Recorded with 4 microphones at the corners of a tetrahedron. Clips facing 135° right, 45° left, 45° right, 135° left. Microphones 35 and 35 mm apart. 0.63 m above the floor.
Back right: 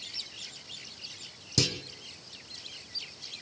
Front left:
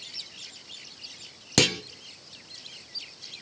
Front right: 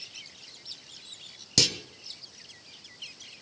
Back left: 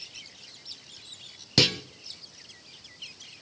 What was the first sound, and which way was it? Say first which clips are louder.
A clunk: front left 7 dB, back left 4 dB; 70° left.